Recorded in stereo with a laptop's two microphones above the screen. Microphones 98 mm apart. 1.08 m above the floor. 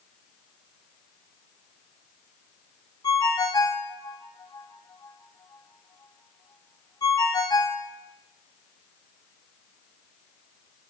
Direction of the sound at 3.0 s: 40° left (ahead or behind).